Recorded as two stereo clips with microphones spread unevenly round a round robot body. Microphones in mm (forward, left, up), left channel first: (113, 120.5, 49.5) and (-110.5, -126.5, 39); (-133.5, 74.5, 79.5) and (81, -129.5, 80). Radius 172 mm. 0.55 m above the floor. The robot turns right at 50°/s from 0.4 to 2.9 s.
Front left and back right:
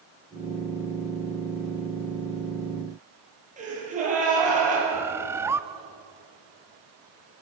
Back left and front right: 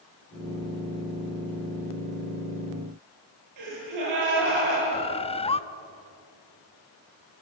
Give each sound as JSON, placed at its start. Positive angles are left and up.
{"t": 3.6, "sound": "a gasp", "azimuth_deg": -65, "distance_m": 9.5}
{"t": 4.9, "sound": "a bird", "azimuth_deg": 165, "distance_m": 0.8}